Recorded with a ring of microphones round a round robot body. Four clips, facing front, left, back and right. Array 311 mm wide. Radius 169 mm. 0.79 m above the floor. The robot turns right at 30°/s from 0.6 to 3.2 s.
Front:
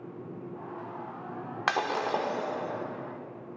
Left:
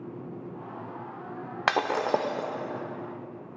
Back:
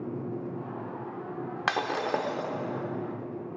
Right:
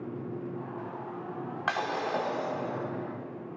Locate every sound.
1.7 s breaking glass: 95° left, 0.7 m; by 2.5 s 120° left, 0.7 m